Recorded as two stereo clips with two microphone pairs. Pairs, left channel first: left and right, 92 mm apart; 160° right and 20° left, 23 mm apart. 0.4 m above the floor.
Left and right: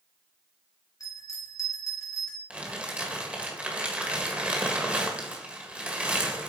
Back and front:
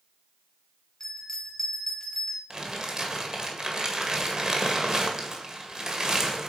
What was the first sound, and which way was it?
A bell, 140° left.